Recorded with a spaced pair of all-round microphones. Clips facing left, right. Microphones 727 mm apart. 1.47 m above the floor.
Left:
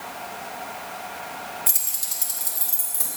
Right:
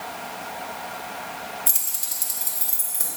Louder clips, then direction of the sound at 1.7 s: Right 1 dB; 20° left (ahead or behind).